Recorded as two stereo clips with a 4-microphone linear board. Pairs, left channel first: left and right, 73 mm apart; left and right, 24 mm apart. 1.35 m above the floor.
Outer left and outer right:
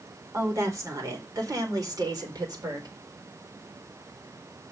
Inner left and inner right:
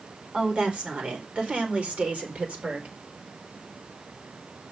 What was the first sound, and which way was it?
A woman speaking, 40° right (ahead or behind).